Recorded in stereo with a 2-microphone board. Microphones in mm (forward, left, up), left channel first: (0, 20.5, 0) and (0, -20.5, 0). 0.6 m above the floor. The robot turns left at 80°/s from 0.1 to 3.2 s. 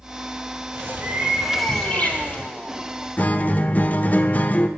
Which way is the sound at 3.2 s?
40° left (ahead or behind).